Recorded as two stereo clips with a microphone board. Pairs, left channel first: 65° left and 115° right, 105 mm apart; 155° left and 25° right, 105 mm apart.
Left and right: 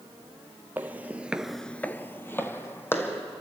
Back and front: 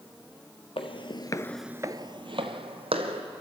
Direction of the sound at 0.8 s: 175° left.